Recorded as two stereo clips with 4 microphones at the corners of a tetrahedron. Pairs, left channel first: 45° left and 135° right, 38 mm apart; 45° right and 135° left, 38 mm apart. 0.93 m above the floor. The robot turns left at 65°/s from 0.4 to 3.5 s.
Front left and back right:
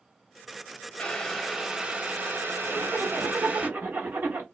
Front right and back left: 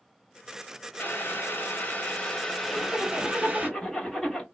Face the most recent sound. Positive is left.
turn(degrees=-125)